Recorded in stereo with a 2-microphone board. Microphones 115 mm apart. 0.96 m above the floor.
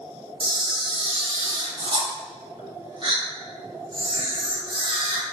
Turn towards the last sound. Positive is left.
turn(degrees=-45)  # may be behind; listen again after turning